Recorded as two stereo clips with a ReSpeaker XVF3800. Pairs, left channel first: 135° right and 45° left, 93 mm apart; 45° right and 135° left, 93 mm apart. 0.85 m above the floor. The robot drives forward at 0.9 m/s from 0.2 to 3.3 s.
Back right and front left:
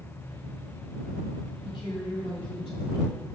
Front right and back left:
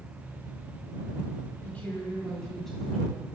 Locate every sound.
1.6 s a woman speaking: 115° right, 2.5 m; by 3.2 s 135° right, 3.5 m